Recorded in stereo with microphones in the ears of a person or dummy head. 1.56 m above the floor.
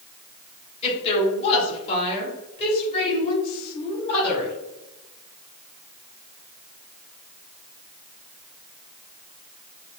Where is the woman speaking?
30° left (ahead or behind), 1.6 m.